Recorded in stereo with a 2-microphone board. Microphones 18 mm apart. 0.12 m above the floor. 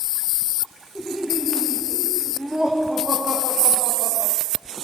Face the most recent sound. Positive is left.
turn(degrees=-15)  # may be behind; listen again after turning